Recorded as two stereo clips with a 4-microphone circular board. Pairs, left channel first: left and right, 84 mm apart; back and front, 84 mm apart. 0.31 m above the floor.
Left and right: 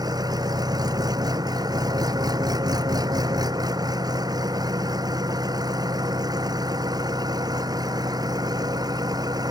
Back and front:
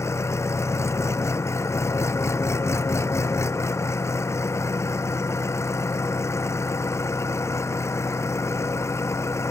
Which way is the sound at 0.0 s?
125° right.